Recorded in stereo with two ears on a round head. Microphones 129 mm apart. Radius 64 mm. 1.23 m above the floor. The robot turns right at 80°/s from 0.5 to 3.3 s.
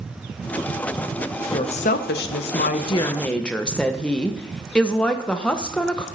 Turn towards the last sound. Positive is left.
turn(degrees=170)